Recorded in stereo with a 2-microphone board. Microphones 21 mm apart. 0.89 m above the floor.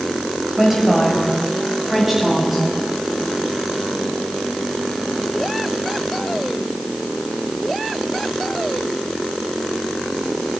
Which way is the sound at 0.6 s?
10° right (ahead or behind).